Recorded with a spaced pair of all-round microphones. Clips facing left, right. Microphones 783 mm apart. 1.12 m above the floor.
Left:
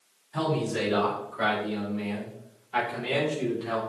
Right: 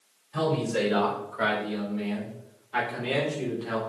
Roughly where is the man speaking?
Centre.